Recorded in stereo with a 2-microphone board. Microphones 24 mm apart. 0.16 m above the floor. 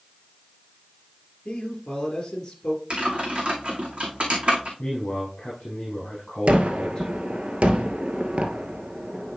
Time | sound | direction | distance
1.4 | a man speaking | 20° left (ahead or behind) | 2.5 m
2.9 | typing on a keyboard | 55° right (ahead or behind) | 2.5 m
4.8 | a man speaking | 35° left (ahead or behind) | 4 m
6.5 | a gunshot | 60° right (ahead or behind) | 1.0 m